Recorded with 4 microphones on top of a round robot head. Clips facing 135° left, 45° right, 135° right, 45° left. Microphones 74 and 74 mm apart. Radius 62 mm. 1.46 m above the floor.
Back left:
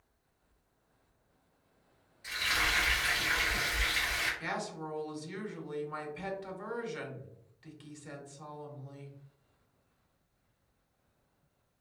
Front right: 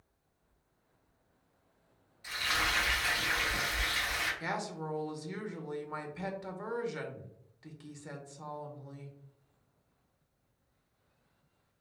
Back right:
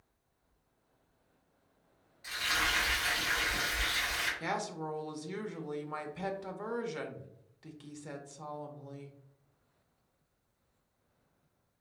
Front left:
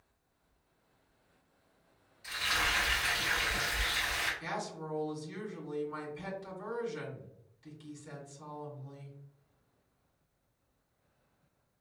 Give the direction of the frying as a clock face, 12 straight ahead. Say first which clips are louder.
Even, even; 3 o'clock.